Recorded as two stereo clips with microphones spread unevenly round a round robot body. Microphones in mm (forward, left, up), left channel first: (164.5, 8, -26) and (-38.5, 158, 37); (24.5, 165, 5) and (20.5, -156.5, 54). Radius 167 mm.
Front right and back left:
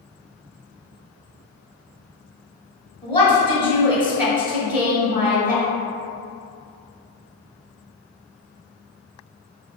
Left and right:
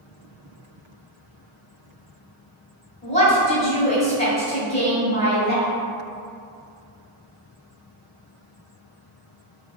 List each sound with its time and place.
3.0 s a woman speaking: 25° left, 1.9 m